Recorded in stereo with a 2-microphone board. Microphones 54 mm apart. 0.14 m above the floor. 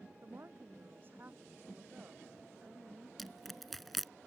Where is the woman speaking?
45° right (ahead or behind); by 3.1 s 25° right (ahead or behind).